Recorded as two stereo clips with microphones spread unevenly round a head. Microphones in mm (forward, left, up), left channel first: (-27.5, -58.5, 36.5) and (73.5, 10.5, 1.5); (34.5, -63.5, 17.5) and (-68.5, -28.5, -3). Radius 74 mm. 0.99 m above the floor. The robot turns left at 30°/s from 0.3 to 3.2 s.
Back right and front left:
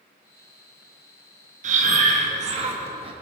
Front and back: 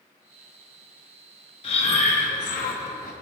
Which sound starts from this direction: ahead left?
Breathing, at 1.6 s.